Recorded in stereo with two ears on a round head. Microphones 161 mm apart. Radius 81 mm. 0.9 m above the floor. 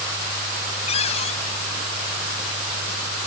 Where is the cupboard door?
40° left (ahead or behind).